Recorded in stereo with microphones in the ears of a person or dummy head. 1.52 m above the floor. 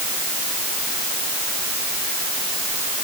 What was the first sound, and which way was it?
Only background noise.